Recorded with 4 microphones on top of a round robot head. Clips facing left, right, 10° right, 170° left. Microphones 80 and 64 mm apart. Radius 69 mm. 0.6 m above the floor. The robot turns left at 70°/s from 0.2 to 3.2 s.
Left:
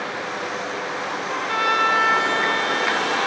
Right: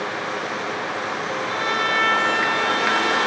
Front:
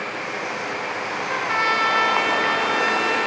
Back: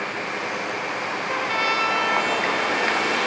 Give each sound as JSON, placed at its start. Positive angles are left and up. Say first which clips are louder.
{"t": 1.3, "sound": "a trumpet", "louder": "left 5 dB, front 3 dB", "azimuth_deg": 70, "distance_m": 1.7}